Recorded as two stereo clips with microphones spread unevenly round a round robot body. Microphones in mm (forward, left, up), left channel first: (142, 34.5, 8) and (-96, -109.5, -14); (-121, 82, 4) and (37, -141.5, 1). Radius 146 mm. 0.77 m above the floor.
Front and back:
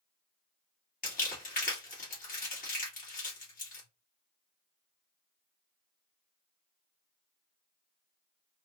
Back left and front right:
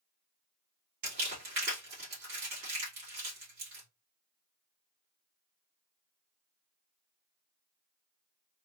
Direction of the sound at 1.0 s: 30° right.